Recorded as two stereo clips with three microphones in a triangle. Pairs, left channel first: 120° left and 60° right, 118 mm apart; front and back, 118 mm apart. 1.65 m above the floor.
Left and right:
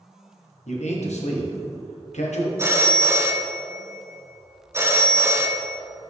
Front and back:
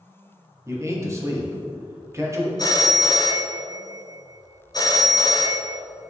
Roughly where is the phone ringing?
Ahead.